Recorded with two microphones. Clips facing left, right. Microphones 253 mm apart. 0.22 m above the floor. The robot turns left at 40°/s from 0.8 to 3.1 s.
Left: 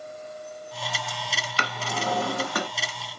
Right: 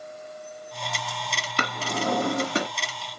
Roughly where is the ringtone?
I don't hear a ringtone.